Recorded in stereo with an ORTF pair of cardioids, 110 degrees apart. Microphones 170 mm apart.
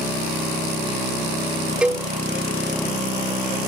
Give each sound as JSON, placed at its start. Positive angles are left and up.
{"t": 1.8, "sound": "a cowbell", "azimuth_deg": -5}